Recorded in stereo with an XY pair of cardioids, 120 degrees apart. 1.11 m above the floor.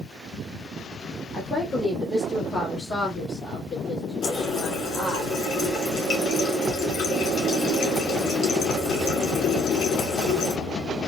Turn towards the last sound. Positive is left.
turn(degrees=60)